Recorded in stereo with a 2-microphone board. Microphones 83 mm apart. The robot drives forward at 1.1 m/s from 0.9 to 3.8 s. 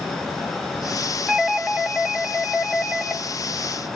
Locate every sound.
1.3 s a doorbell: 5° right (ahead or behind), 1.3 m; by 3.2 s centre (ahead or behind), 3 m